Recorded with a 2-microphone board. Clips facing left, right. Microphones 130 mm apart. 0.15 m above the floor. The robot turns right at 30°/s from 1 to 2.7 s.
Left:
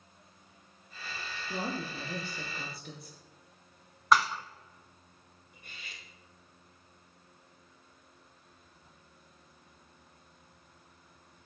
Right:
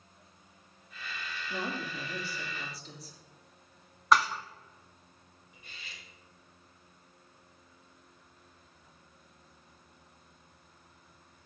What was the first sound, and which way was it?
A woman speaking, 45° left.